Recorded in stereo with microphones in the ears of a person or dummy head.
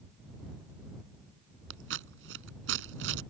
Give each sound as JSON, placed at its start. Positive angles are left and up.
{"t": 1.7, "sound": "scissors", "side_deg": -75}